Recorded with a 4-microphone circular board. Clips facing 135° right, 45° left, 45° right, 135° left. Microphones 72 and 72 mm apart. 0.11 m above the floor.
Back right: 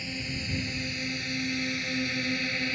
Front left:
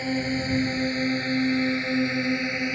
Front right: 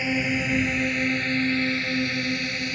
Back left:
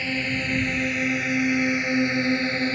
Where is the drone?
30° left; by 2.8 s 105° left.